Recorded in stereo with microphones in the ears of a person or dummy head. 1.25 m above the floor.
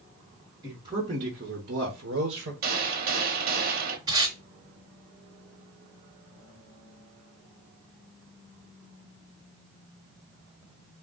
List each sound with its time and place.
0.6 s a man speaking: 20° right (ahead or behind), 1.2 m; by 2.5 s 60° right (ahead or behind), 1.0 m
2.6 s a gunshot: 55° right (ahead or behind), 0.7 m
4.1 s tape being pulled: 20° right (ahead or behind), 1.7 m